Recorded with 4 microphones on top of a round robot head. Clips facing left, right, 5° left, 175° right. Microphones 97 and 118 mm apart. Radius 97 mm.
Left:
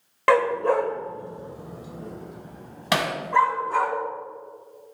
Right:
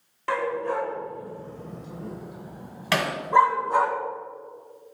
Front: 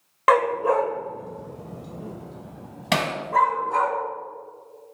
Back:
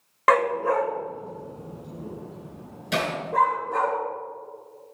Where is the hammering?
20° left, 2.5 m.